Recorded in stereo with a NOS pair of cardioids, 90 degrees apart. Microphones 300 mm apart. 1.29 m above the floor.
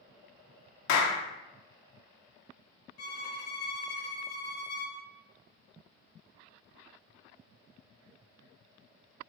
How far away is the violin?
About 0.8 m.